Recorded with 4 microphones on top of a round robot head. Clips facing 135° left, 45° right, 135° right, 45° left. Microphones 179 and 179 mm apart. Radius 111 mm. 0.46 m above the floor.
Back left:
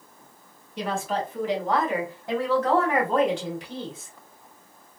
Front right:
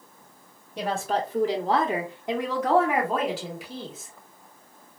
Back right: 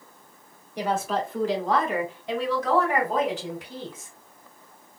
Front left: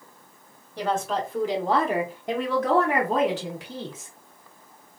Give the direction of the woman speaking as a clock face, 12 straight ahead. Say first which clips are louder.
Front right 1 dB, even; 2 o'clock.